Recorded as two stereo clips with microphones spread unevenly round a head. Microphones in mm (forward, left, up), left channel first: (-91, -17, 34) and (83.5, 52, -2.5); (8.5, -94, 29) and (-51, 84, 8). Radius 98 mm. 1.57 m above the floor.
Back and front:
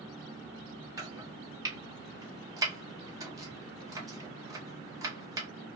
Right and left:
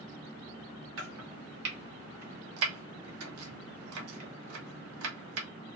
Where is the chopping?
100° left, 0.8 m.